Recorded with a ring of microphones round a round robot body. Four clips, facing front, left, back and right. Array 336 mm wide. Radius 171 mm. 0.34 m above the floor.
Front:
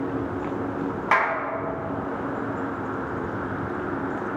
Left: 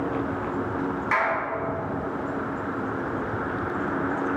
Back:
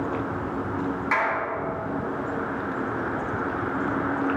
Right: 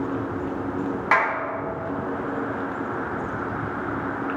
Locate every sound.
1.1 s a clap: 55° right, 3 m